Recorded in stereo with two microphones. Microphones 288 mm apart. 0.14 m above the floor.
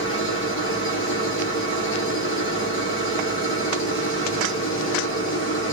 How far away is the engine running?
About 5.5 m.